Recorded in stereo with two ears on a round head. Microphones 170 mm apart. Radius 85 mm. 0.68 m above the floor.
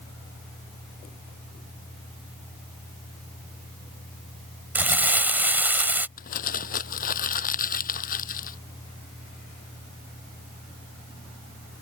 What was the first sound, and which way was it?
Crumpling, 10° right (ahead or behind).